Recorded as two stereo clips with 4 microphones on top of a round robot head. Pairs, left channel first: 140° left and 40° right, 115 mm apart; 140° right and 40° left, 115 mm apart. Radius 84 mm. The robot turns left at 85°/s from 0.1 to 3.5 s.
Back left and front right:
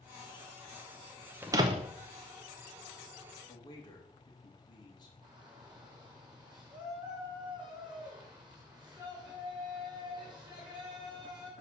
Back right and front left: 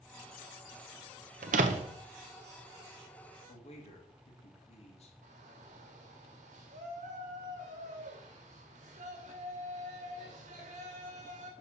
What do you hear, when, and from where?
1.4 s a door slam: 35° left, 0.8 m; by 2.0 s 15° right, 0.8 m
3.5 s a man speaking: 165° right, 2.5 m; by 5.1 s 170° right, 2.5 m
5.2 s a shout: 40° left, 2 m